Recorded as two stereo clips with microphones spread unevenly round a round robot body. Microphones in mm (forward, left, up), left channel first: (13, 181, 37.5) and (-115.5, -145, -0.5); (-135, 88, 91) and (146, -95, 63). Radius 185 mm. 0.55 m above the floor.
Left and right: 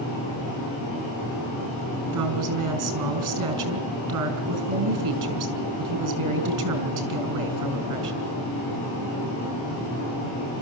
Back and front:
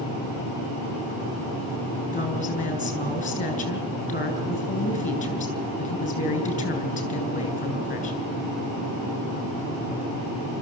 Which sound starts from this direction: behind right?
A woman speaking, at 2.1 s.